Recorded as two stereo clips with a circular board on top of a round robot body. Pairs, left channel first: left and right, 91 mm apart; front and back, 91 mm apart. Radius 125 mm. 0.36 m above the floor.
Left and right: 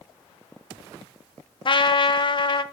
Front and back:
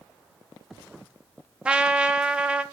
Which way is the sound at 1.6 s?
105° left.